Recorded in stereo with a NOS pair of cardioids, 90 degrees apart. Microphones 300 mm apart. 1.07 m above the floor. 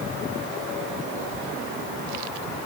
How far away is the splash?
No splash in this recording.